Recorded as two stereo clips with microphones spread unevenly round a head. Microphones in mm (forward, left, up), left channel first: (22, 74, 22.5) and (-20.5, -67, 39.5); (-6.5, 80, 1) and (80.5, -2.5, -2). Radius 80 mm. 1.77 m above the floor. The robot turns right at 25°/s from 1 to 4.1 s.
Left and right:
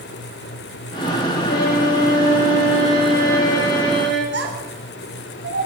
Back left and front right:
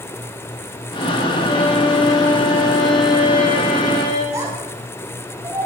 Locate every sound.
1.4 s a violin: 90° left, 8 m; by 4.2 s 160° left, 8 m
4.3 s a child speaking: 115° right, 7 m